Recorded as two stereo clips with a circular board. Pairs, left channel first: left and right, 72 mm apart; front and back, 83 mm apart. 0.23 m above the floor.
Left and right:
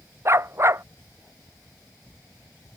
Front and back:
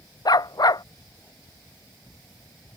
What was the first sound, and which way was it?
A dog barking, 35° right.